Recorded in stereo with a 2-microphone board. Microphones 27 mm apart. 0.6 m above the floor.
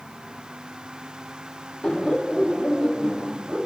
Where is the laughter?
30° left (ahead or behind), 1.0 m; by 3.7 s 20° left (ahead or behind), 1.7 m.